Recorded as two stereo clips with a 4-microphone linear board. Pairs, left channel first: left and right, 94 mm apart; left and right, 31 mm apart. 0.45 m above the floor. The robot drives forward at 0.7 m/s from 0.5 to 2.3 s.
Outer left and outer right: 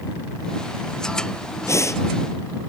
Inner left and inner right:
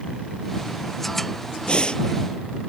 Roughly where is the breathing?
Left.